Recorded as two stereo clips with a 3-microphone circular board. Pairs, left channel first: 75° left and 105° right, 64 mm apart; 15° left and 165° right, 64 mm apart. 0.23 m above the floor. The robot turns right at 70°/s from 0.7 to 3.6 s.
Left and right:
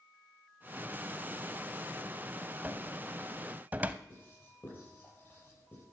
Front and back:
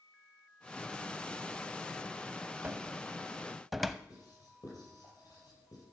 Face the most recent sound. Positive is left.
turn(degrees=20)